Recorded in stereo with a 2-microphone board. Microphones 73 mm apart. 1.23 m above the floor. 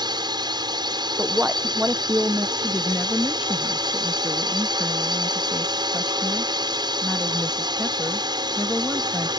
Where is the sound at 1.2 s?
20° right (ahead or behind).